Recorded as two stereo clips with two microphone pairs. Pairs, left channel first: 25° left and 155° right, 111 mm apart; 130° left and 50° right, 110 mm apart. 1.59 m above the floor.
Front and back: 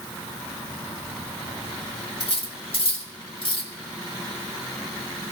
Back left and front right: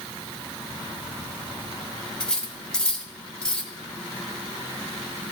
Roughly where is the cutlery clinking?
Ahead left.